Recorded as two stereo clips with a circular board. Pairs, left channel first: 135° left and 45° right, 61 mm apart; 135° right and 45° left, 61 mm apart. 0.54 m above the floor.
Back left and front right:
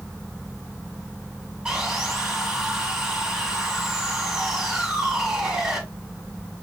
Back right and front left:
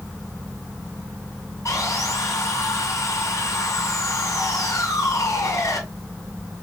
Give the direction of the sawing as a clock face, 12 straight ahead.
4 o'clock.